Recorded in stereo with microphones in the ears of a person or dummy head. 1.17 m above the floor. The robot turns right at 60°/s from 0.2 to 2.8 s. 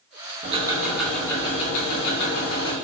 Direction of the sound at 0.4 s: 35° right.